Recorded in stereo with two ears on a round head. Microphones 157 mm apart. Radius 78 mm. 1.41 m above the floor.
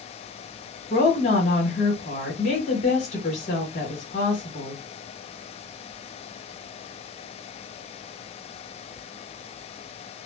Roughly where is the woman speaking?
Left.